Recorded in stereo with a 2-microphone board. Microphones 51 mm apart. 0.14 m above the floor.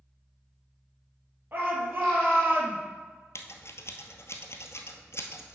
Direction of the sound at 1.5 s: 45° right (ahead or behind).